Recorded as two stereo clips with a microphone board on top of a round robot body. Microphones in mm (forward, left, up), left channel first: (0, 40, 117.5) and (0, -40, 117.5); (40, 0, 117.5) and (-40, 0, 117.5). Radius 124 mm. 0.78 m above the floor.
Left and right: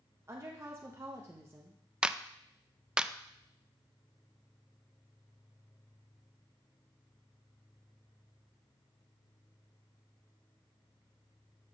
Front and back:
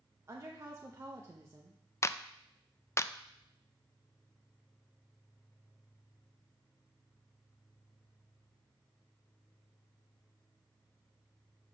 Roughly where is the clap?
Ahead.